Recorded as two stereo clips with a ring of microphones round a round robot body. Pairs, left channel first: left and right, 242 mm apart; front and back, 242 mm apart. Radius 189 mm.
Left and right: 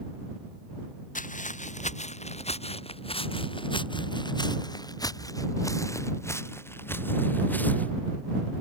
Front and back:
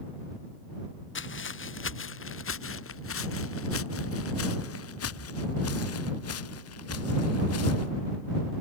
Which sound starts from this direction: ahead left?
Footsteps, at 1.1 s.